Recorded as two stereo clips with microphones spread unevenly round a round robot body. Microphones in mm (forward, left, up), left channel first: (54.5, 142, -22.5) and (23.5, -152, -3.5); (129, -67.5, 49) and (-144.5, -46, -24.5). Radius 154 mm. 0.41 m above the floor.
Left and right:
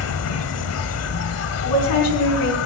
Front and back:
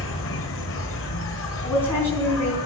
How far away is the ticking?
No ticking in this recording.